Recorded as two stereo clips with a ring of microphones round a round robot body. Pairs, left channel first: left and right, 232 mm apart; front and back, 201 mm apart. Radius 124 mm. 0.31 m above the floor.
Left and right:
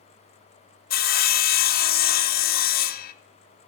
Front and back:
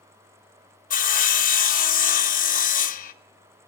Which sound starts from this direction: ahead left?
Sawing, at 0.9 s.